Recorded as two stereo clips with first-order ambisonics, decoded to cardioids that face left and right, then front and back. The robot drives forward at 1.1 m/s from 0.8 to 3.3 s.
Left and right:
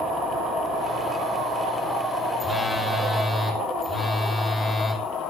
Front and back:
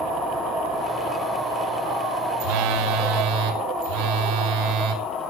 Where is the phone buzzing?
170° left, 0.9 m; by 5.0 s 175° left, 1.8 m.